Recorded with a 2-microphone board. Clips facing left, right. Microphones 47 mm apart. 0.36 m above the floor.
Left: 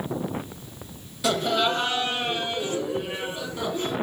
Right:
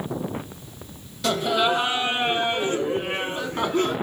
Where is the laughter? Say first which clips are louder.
Right 2 dB; 5° left (ahead or behind), 2 m; by 3.9 s 50° right (ahead or behind), 4 m.